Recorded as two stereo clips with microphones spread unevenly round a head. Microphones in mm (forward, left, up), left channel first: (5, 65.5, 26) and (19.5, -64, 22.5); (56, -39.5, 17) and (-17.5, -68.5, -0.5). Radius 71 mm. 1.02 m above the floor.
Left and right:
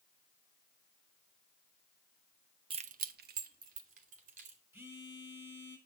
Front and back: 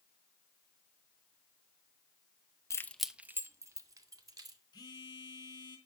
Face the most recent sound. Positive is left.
turn(degrees=-15)